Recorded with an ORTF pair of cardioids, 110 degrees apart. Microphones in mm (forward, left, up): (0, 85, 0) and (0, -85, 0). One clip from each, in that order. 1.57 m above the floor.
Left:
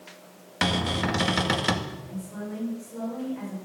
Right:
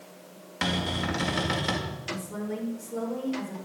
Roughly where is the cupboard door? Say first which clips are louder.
Left 3 dB; ahead left.